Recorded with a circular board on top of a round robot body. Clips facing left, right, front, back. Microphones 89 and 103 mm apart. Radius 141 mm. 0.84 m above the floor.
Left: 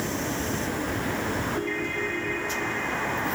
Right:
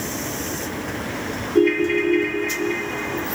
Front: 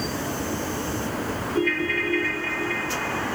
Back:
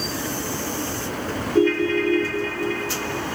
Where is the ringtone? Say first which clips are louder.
Right 12 dB, back 8 dB; 120° right, 1.1 m.